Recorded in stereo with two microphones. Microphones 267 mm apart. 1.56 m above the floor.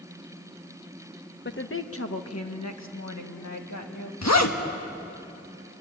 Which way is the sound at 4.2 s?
70° left (ahead or behind).